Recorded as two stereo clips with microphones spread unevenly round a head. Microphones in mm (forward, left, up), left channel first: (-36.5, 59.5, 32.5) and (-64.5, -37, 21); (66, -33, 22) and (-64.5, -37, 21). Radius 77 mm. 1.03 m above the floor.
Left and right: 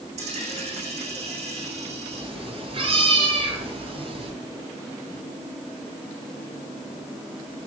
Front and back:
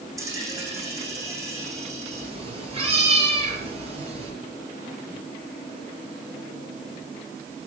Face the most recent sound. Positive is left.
turn(degrees=-135)